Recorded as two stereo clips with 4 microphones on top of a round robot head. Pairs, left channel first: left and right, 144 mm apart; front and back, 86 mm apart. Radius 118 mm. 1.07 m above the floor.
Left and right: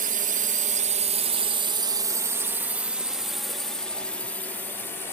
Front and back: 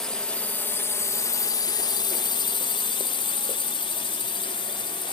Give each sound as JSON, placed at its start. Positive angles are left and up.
{"t": 0.0, "sound": "a drone", "azimuth_deg": -85}